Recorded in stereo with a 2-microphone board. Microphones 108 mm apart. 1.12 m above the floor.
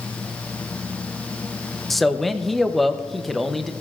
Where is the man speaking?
Centre (ahead or behind), 0.7 m.